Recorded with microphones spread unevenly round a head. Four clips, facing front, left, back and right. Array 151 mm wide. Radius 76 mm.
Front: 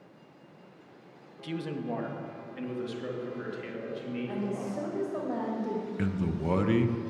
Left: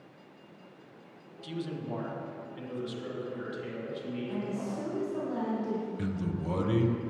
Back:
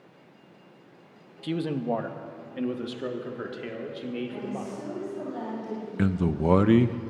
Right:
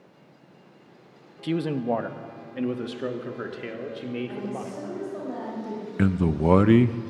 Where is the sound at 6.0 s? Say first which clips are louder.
Right 11 dB, back 9 dB; 125° right, 0.5 m.